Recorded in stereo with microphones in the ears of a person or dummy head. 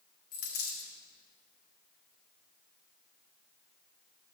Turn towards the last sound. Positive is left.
turn(degrees=55)  # may be behind; listen again after turning